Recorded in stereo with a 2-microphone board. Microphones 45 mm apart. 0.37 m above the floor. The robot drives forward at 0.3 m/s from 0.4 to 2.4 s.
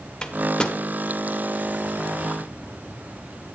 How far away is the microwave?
About 0.7 m.